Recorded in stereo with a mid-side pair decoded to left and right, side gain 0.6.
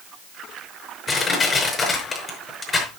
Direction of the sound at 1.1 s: 25° left.